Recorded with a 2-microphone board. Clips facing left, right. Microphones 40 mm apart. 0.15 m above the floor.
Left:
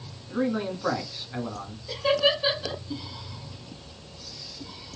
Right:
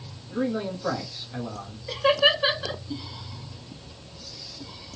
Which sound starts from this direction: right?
Laughter, at 1.9 s.